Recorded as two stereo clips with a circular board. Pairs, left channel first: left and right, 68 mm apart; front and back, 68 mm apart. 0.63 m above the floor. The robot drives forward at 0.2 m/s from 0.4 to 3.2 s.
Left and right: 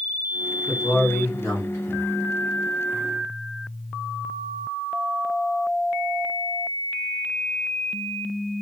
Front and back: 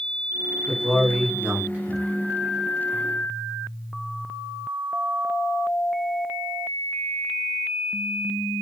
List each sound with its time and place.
0.7 s a man speaking: 110° left, 1.7 m; by 2.0 s 120° left, 1.8 m